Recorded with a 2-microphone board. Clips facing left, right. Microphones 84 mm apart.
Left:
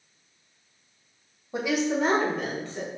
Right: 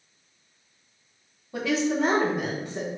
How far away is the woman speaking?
About 0.9 m.